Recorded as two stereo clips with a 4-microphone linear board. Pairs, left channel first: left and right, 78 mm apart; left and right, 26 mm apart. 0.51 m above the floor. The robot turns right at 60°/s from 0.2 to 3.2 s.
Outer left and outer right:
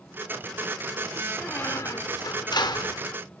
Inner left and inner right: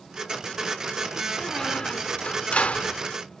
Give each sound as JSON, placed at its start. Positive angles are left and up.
{"t": 1.4, "sound": "a squeak", "azimuth_deg": 15, "distance_m": 0.6}